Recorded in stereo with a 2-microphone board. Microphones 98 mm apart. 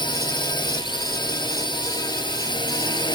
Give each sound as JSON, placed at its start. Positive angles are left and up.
{"t": 0.0, "sound": "a drone", "side_deg": 50}